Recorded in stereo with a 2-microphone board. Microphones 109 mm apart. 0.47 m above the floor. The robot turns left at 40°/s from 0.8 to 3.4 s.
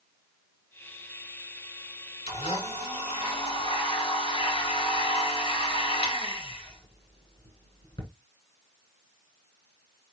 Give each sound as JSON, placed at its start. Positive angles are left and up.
{"t": 2.3, "sound": "a blender", "azimuth_deg": 110, "distance_m": 1.9}